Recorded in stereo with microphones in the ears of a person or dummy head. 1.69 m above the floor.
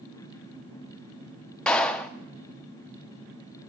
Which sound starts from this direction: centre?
A clap, at 1.7 s.